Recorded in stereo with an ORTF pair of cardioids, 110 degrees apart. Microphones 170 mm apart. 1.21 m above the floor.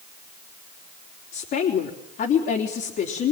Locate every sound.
1.3 s a woman speaking: 60° left, 3.5 m